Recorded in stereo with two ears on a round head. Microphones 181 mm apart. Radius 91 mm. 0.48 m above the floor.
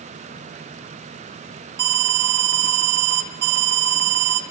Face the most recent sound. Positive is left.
turn(degrees=-50)  # may be behind; listen again after turning